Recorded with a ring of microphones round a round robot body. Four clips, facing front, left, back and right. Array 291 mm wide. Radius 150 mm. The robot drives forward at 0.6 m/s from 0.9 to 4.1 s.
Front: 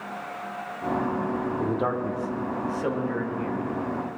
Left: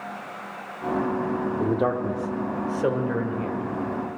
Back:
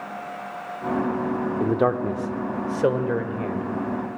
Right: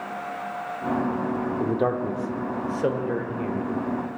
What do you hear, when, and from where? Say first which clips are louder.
1.6 s a man speaking: even, back 7 dB; straight behind, 1.0 m